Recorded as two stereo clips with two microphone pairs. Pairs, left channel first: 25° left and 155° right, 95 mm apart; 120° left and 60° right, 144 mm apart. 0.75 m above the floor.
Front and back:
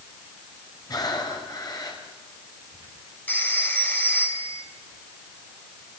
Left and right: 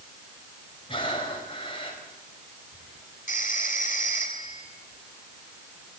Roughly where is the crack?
No crack in this recording.